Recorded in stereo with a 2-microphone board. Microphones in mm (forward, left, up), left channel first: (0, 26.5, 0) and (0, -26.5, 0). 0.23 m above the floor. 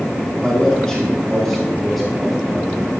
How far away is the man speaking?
About 2.5 m.